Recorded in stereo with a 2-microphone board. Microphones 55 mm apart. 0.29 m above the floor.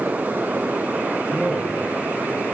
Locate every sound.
1.3 s a man speaking: 10° right (ahead or behind), 9.5 m